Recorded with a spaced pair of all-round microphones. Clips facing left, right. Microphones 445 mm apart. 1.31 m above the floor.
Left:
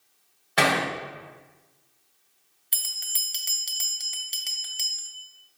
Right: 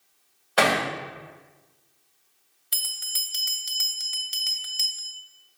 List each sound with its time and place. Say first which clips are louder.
0.6 s hammering: right 1 dB; 40° left (ahead or behind), 2.5 m
2.7 s a bell: even; 25° right (ahead or behind), 0.6 m